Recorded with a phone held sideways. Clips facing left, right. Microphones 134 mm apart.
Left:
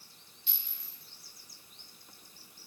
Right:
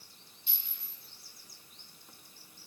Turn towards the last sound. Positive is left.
turn(degrees=-45)  # may be behind; listen again after turning